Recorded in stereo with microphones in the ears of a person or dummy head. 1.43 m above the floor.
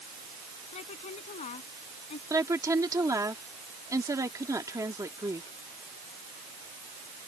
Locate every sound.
0.7 s a woman speaking: 40° left (ahead or behind); by 2.2 s 35° left (ahead or behind)
2.3 s a woman speaking: 15° right (ahead or behind)